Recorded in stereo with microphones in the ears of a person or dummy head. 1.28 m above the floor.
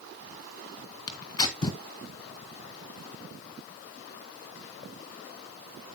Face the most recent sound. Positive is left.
turn(degrees=25)  # may be behind; listen again after turning